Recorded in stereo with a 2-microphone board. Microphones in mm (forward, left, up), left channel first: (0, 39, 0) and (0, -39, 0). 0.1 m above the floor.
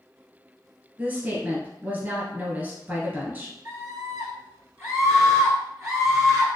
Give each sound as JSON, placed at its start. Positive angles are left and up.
{"t": 1.0, "sound": "a woman speaking", "side_deg": -25, "distance_m": 1.8}
{"t": 3.6, "sound": "a scream", "side_deg": -40, "distance_m": 1.9}